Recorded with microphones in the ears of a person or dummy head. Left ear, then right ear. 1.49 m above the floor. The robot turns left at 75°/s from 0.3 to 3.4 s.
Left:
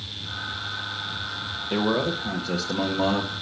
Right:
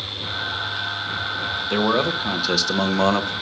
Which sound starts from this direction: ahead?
A man speaking, at 1.7 s.